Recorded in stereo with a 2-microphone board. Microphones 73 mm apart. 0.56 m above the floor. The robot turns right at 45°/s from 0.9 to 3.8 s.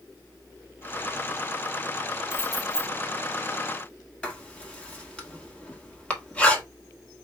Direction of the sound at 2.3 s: 40° left (ahead or behind).